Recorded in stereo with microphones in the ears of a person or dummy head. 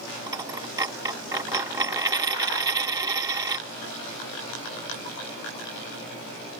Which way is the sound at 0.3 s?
20° right (ahead or behind).